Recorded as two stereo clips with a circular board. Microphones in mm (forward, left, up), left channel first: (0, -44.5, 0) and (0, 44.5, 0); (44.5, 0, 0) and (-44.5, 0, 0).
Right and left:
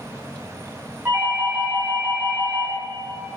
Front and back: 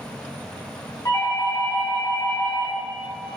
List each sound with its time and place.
1.1 s a doorbell: 35° left, 3 m